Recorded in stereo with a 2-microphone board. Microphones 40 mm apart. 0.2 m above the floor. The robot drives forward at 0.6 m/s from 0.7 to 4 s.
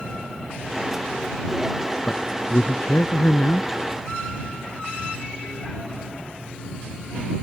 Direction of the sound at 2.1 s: 55° left (ahead or behind).